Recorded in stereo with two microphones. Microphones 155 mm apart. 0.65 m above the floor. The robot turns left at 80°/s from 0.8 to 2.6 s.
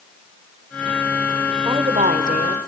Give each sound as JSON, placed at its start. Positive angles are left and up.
{"t": 1.6, "sound": "a woman speaking", "azimuth_deg": -30, "distance_m": 3.0}